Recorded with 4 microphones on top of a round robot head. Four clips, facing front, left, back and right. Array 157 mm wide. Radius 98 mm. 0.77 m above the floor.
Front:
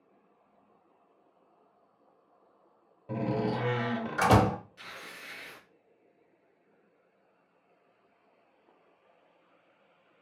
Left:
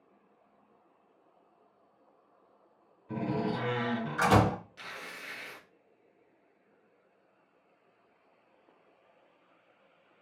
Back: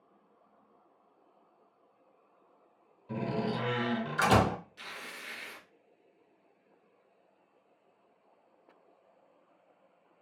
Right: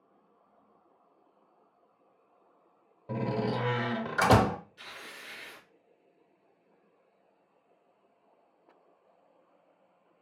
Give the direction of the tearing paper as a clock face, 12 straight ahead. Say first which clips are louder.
Left 3 dB, back 1 dB; 9 o'clock.